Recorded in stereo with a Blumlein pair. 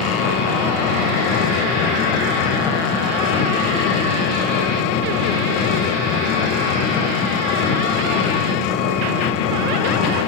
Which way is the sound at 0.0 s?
40° left.